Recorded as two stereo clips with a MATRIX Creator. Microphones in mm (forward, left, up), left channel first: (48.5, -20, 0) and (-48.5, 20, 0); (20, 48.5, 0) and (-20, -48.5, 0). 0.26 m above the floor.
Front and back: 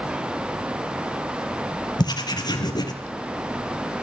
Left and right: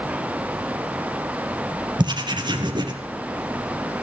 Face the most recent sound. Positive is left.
turn(degrees=-70)